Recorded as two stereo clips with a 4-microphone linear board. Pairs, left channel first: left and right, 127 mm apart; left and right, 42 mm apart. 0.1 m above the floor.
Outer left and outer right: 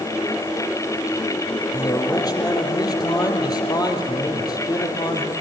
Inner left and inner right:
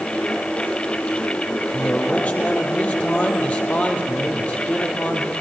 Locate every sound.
1.7 s a man speaking: 30° left (ahead or behind), 3.5 m